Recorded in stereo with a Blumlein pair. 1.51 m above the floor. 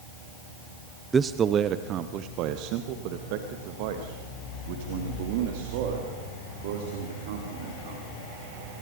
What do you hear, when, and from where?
1.1 s a man speaking: 15° right, 0.6 m; by 8.1 s 55° right, 4.5 m